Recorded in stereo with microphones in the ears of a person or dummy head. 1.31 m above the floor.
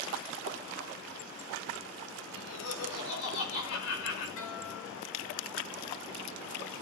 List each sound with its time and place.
2.3 s laughter: 85° left, 5.5 m; by 4.3 s 65° left (ahead or behind), 6.5 m
4.4 s a guitar: 70° left (ahead or behind), 8.5 m